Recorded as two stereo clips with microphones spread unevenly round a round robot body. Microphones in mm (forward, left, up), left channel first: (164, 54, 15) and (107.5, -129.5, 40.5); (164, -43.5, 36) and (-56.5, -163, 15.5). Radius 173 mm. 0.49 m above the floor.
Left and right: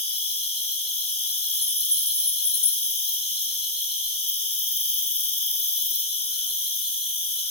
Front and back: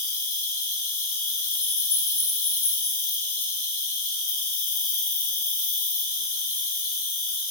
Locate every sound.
0.0 s an insect: 15° left, 4 m